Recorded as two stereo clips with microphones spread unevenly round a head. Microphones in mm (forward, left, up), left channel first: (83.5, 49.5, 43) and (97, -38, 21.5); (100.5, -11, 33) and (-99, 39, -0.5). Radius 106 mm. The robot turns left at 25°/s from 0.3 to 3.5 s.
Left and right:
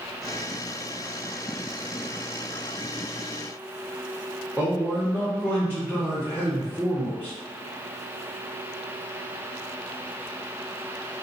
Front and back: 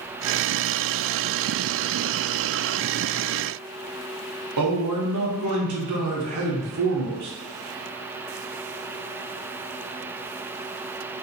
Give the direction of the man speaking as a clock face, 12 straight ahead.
6 o'clock.